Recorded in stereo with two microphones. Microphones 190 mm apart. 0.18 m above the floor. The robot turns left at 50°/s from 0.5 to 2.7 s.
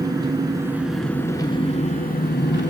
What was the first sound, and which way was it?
An engine running, 155° right.